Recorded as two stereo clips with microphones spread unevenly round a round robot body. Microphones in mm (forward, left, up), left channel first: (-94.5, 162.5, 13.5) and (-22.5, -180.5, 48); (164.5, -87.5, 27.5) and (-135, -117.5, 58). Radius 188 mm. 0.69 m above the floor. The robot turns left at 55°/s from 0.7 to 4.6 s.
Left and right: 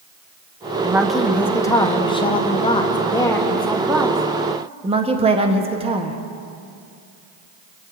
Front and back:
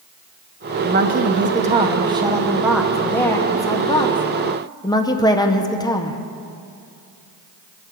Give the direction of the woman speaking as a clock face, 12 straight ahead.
6 o'clock.